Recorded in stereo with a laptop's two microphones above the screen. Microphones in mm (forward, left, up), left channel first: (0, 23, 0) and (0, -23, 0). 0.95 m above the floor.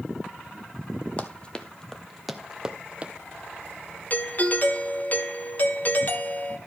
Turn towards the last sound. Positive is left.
turn(degrees=40)  # may be behind; listen again after turning